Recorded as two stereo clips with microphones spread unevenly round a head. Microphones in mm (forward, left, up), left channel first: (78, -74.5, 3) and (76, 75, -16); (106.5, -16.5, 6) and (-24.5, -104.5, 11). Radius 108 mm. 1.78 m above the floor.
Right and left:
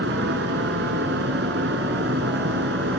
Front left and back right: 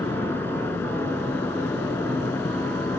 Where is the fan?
115° left.